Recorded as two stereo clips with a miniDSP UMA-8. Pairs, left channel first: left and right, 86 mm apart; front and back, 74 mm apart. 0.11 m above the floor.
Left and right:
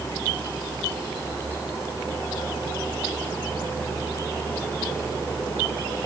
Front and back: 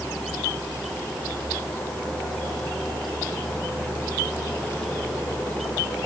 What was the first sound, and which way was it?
Only background noise.